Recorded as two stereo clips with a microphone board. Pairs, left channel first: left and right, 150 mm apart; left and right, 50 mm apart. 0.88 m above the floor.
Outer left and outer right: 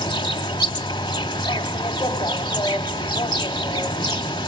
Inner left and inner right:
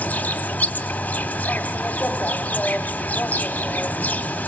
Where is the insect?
30° left (ahead or behind), 1.0 m.